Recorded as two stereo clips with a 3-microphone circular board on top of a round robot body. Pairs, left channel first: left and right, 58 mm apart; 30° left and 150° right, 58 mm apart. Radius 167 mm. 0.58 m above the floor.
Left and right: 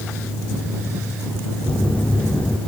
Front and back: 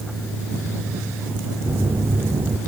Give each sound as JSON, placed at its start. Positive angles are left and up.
{"t": 1.7, "sound": "a phone buzzing", "azimuth_deg": 160}